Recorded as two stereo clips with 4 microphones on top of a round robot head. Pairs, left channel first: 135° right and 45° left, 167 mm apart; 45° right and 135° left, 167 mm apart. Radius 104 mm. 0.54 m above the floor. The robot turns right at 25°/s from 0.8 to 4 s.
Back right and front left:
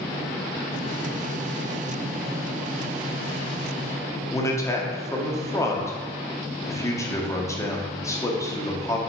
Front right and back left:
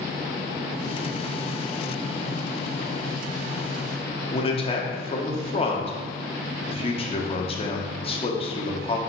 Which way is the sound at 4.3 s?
70° right.